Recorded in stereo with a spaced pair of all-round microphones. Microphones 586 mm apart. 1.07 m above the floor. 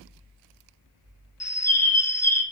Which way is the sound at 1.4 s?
30° left (ahead or behind).